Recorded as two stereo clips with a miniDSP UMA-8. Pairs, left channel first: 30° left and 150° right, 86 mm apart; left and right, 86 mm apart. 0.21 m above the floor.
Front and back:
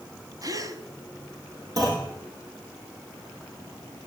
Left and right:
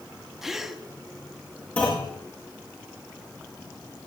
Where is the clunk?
160° left, 5.5 m.